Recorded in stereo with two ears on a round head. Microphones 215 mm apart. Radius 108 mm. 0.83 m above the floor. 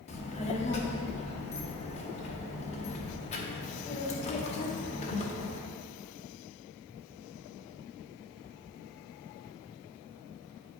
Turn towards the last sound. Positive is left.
turn(degrees=25)  # may be behind; listen again after turning